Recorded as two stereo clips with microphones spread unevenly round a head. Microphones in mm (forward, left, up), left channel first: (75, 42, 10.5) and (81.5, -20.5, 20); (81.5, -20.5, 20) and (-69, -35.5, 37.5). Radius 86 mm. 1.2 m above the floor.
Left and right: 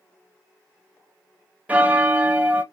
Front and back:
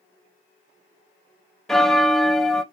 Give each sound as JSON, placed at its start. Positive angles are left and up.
{"t": 1.7, "sound": "a bell", "azimuth_deg": -90, "distance_m": 0.6}